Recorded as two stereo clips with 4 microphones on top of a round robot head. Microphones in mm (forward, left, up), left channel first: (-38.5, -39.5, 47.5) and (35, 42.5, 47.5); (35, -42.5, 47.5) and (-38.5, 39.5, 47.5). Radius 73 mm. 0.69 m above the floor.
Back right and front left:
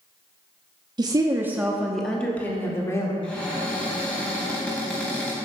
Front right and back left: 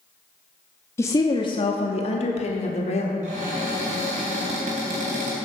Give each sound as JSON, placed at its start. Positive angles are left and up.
{"t": 1.0, "sound": "a woman speaking", "azimuth_deg": 10, "distance_m": 0.9}
{"t": 3.2, "sound": "a cupboard door", "azimuth_deg": 150, "distance_m": 3.0}